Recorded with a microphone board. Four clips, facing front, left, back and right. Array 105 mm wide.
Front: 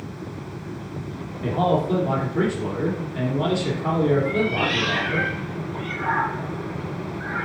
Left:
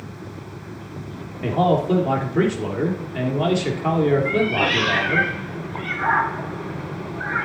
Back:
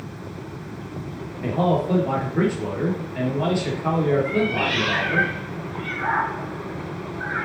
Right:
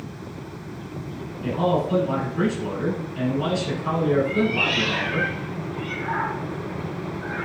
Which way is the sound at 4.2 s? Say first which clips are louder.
Left 2 dB, even; 105° left.